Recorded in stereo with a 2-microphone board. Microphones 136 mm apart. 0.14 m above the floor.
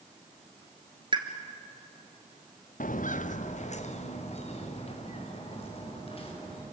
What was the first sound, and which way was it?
A pop, 40° right (ahead or behind).